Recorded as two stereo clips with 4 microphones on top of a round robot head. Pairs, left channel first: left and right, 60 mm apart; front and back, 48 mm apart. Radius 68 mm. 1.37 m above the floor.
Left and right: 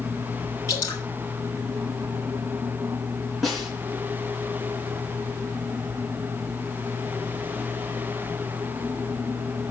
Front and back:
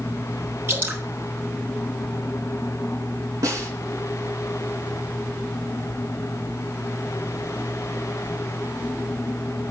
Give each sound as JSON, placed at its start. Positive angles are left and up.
{"t": 0.7, "sound": "dripping", "azimuth_deg": 140, "distance_m": 3.5}
{"t": 3.4, "sound": "a snare drum", "azimuth_deg": 180, "distance_m": 3.0}